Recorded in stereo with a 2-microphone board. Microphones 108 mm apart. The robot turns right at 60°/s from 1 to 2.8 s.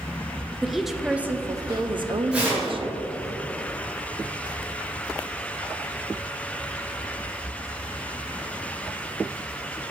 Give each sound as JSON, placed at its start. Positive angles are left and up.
{"t": 0.6, "sound": "a woman speaking", "azimuth_deg": -175, "distance_m": 0.5}
{"t": 2.3, "sound": "tearing paper", "side_deg": -10, "distance_m": 2.5}